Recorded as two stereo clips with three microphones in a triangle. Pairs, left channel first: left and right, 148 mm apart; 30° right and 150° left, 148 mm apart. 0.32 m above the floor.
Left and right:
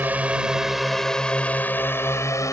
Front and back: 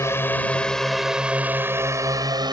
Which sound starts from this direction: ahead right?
A drone, at 0.0 s.